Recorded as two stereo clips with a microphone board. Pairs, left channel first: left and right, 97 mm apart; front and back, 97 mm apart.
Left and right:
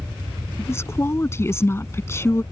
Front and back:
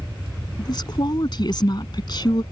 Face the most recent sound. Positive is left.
turn(degrees=30)